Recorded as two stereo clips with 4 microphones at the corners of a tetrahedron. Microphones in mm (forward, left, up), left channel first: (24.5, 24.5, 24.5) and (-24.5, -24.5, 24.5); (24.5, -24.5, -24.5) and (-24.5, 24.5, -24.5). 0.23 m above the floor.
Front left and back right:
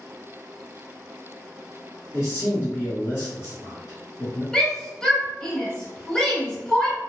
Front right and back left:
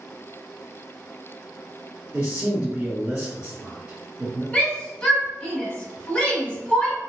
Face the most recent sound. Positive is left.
turn(degrees=-10)